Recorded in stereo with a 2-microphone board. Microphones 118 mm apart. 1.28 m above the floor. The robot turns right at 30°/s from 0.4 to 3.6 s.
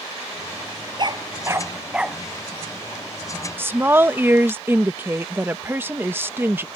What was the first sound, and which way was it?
A dog barking, 40° right (ahead or behind).